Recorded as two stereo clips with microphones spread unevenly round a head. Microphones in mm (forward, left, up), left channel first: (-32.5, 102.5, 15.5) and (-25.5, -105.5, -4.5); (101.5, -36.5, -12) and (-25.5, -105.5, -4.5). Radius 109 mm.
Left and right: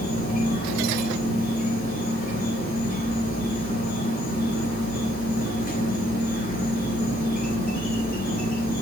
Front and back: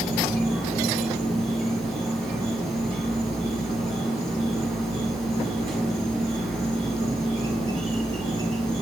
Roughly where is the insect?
Behind left.